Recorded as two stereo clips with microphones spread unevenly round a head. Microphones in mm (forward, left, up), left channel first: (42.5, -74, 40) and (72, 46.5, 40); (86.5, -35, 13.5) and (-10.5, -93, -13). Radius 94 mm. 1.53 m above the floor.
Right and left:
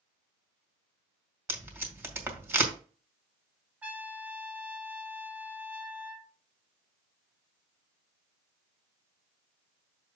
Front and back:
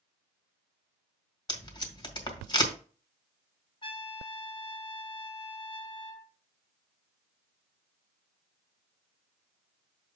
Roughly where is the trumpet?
Ahead.